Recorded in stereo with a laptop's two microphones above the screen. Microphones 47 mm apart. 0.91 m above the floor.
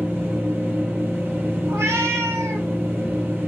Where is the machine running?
45° right (ahead or behind), 0.8 m.